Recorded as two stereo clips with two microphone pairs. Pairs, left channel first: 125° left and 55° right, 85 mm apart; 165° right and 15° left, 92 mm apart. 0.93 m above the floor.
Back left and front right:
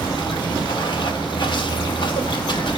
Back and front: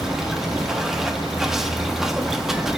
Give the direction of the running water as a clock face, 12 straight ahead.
9 o'clock.